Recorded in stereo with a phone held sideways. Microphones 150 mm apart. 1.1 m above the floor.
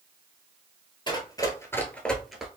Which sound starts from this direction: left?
Running footsteps, at 1.1 s.